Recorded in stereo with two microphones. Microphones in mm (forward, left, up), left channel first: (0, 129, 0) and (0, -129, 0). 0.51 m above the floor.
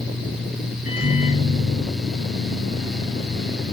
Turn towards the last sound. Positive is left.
turn(degrees=-65)  # may be behind; listen again after turning